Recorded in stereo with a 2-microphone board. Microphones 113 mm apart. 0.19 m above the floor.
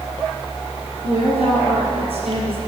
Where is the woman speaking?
60° right (ahead or behind), 3.5 m.